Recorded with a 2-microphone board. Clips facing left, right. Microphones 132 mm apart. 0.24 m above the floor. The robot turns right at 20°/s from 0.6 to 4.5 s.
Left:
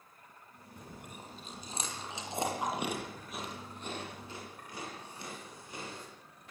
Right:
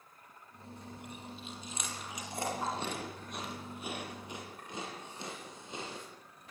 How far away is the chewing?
About 7.5 m.